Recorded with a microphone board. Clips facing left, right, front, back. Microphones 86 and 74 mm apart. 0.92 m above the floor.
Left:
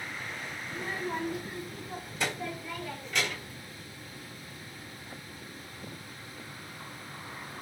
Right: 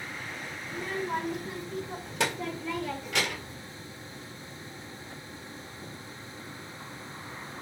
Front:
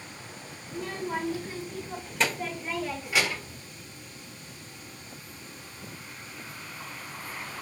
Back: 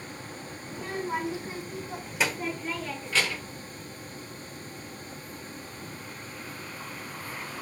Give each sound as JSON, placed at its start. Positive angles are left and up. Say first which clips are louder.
{"t": 0.7, "sound": "a child speaking", "louder": "right 3 dB, back 1 dB", "azimuth_deg": -115, "distance_m": 2.5}